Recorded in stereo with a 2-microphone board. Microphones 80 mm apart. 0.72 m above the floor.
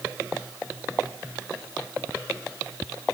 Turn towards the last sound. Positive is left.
No sound to turn to.